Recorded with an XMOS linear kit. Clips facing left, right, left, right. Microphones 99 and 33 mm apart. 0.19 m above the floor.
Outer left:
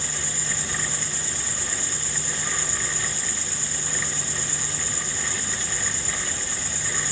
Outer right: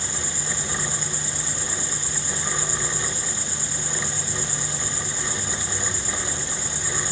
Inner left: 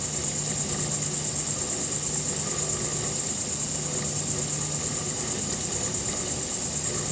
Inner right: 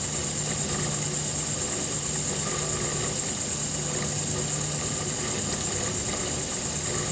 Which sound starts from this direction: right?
An insect, at 0.0 s.